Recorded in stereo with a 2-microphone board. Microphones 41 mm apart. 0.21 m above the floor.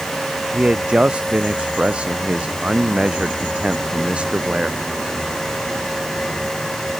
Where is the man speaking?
25° right (ahead or behind).